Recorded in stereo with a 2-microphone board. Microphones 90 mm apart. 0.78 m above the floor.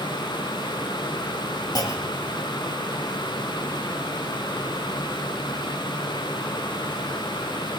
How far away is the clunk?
About 3.5 m.